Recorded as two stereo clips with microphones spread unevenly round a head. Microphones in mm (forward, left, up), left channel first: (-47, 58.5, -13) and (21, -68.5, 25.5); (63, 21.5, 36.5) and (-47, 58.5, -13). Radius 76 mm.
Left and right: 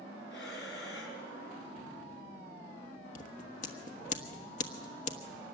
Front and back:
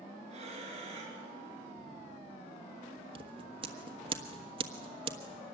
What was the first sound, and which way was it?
Breathing, 125° left.